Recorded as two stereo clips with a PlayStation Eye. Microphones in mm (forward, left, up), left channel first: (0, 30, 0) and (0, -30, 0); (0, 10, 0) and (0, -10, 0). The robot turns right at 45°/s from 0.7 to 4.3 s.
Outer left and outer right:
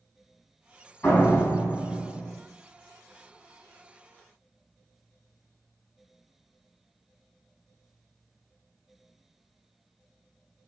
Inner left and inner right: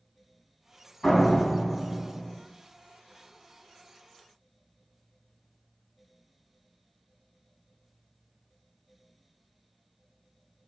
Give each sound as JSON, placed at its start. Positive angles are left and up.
{"t": 1.0, "sound": "a door slam", "azimuth_deg": 30, "distance_m": 3.5}